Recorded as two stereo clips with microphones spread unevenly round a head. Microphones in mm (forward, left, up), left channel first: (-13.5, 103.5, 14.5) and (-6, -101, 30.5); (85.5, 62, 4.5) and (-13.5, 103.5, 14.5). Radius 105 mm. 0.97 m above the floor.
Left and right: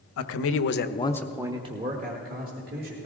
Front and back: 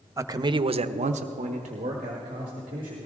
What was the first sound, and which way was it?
A man speaking, 90° left.